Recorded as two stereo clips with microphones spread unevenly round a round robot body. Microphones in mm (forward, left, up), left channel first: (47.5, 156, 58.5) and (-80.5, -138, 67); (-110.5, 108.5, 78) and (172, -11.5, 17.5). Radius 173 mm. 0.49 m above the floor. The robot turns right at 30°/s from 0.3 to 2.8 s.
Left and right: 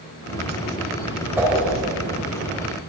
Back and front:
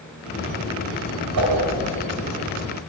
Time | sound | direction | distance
1.4 | a whoosh | 30° right | 2.5 m